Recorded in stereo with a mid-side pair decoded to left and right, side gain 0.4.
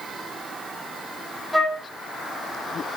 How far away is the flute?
About 1.8 m.